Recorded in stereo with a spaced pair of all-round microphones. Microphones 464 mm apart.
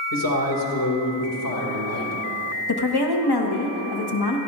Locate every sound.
0.1 s a man speaking: 45° left (ahead or behind), 2 m
2.7 s a woman speaking: 55° left (ahead or behind), 1.2 m